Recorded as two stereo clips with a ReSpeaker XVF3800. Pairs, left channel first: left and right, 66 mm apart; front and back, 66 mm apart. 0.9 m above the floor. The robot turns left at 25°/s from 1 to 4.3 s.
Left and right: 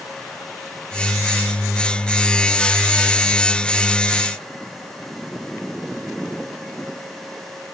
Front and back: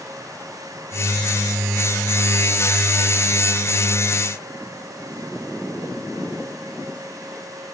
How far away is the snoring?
I don't hear snoring.